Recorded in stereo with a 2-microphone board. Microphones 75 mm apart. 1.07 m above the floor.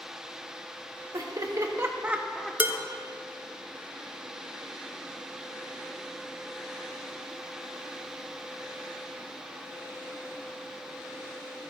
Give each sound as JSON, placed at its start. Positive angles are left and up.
{"t": 1.1, "sound": "laughter", "side_deg": -55, "distance_m": 1.2}
{"t": 2.6, "sound": "dishes clattering", "side_deg": -20, "distance_m": 0.5}